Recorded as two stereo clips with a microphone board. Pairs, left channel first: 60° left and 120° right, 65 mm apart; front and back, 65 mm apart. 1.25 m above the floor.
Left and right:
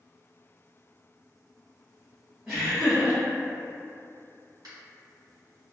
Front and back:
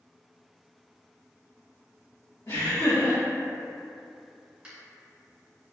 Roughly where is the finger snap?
Right.